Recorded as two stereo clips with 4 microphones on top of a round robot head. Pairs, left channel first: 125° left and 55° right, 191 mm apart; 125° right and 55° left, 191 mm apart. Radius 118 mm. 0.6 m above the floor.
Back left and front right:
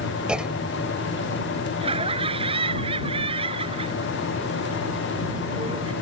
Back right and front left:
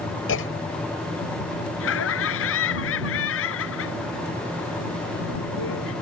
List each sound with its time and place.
0.3 s a clunk: 140° right
1.8 s laughter: 120° right